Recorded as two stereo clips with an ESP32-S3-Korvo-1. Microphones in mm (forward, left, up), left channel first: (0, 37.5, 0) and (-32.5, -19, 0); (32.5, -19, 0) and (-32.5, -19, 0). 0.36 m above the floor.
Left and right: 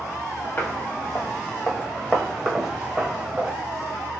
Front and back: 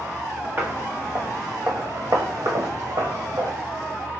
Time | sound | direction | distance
0.6 | footsteps | 120° left | 2 m